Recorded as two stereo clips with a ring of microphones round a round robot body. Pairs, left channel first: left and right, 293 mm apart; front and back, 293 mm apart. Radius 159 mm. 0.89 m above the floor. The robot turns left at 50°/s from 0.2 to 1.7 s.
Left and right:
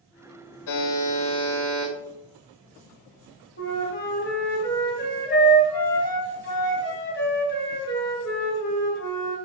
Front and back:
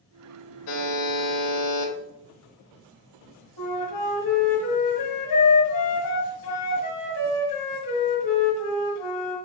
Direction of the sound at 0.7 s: 50° left.